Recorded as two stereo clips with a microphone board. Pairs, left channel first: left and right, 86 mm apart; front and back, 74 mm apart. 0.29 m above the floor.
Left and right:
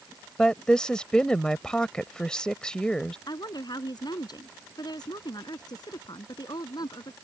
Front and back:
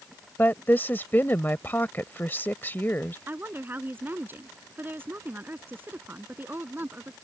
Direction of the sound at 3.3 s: 120° left.